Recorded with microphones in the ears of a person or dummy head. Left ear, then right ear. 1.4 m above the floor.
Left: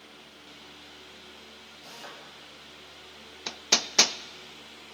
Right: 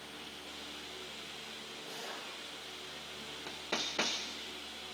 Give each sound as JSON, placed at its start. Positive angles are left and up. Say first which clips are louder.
{"t": 1.8, "sound": "a drill", "louder": "left 1 dB", "side_deg": 65, "distance_m": 9.0}
{"t": 3.5, "sound": "hammering", "louder": "left 11 dB", "side_deg": 85, "distance_m": 0.5}